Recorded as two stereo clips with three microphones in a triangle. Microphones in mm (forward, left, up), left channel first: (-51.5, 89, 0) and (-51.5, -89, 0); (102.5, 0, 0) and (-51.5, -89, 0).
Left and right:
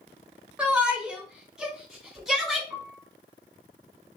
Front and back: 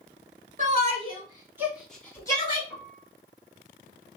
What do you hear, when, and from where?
0.6 s a shout: 170° right, 1.4 m; by 2.6 s 5° left, 1.2 m
2.7 s a piano: 125° left, 1.6 m